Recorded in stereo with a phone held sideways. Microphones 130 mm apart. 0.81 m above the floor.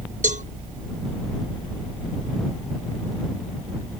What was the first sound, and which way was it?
A cowbell, 80° right.